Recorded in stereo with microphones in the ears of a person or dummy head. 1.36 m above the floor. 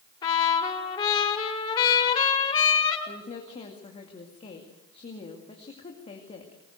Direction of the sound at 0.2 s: 30° left (ahead or behind).